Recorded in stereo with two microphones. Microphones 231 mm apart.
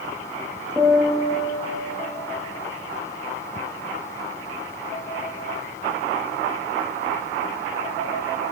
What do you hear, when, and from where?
0.8 s a piano: 15° right (ahead or behind), 6 m